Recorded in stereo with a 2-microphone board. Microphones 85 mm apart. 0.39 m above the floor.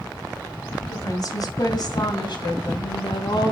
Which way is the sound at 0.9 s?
45° left (ahead or behind).